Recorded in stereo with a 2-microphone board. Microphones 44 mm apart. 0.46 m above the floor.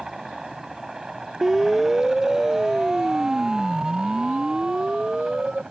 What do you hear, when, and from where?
0.0 s a helicopter: 10° right (ahead or behind); by 5.7 s 15° right (ahead or behind)
1.4 s a siren: 5° right (ahead or behind); by 5.6 s 15° right (ahead or behind)